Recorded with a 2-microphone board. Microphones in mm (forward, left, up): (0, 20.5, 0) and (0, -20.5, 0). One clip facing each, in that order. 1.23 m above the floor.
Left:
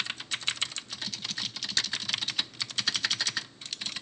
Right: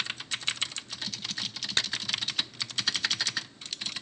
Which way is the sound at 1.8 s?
40° right (ahead or behind).